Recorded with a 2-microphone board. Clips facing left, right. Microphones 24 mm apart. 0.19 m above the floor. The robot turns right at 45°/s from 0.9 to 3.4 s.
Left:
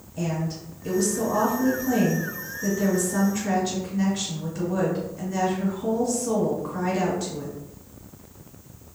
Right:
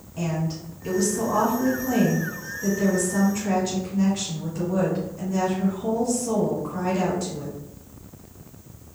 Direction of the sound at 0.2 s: 20° right (ahead or behind).